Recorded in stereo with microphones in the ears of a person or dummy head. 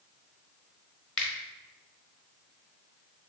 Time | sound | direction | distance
1.2 | a finger snap | 5° left (ahead or behind) | 0.7 m